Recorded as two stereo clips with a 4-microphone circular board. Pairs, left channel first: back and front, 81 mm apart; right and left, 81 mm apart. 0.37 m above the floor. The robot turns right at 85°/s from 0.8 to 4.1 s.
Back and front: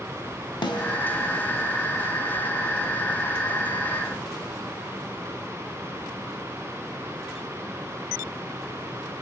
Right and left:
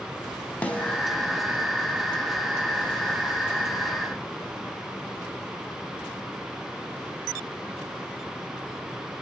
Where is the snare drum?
160° right, 1.0 m; by 1.0 s 145° right, 1.0 m.